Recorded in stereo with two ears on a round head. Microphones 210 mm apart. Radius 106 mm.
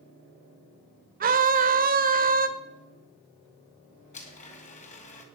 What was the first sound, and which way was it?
A scream, 35° right (ahead or behind).